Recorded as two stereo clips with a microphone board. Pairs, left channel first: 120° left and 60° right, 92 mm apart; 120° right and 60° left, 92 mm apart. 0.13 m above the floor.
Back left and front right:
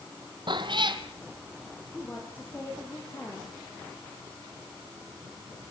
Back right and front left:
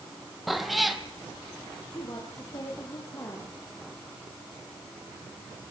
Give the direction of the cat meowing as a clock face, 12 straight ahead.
1 o'clock.